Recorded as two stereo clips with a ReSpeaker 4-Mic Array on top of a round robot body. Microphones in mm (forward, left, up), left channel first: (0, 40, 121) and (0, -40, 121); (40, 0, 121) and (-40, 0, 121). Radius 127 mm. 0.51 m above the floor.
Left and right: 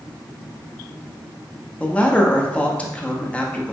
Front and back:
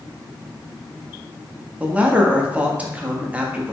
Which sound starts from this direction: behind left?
A man speaking, at 1.8 s.